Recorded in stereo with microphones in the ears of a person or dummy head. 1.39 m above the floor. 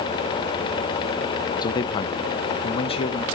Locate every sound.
1.6 s a man speaking: 25° left (ahead or behind), 0.7 m; by 3.2 s 40° left (ahead or behind), 1.8 m